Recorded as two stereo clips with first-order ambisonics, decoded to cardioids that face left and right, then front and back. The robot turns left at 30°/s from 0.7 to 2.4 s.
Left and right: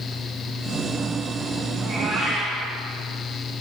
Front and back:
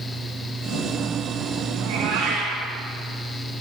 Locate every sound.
1.8 s a cat meowing: 160° right, 2.5 m; by 2.7 s straight behind, 2.5 m